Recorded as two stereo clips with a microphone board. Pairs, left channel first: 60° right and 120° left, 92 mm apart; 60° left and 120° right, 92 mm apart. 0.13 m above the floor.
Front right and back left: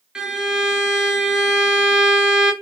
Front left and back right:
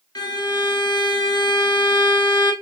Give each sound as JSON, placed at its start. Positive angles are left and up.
{"t": 0.1, "sound": "a violin", "azimuth_deg": 40, "distance_m": 0.6}